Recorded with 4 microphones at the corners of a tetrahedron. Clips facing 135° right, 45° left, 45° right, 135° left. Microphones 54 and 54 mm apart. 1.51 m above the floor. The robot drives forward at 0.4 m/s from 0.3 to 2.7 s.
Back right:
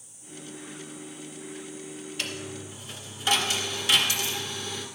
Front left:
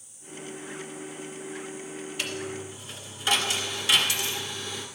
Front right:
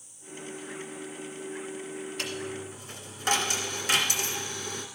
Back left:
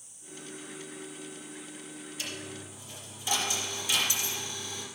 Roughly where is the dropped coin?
Ahead right.